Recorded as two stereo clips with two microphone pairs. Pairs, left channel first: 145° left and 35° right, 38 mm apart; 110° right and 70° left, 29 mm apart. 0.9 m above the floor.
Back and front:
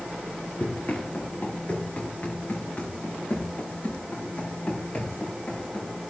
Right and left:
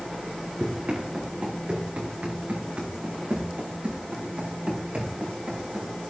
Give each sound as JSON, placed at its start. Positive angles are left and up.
{"t": 0.6, "sound": "running footsteps", "azimuth_deg": 110, "distance_m": 5.0}